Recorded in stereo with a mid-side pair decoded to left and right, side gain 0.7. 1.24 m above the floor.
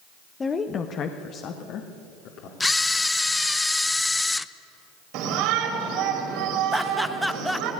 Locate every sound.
0.4 s a woman speaking: 20° left, 1.0 m; by 2.5 s 60° left, 3 m
2.6 s a camera shutter: 10° left, 0.6 m
5.1 s a shout: 65° right, 4 m
6.7 s laughter: straight ahead, 1.3 m